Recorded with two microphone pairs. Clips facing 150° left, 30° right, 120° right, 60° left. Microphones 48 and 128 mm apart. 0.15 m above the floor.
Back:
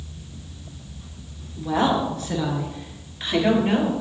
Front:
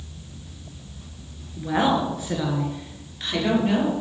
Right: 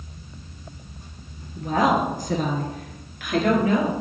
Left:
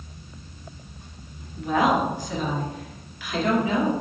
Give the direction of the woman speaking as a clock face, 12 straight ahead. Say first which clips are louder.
Even, right 1 dB; 3 o'clock.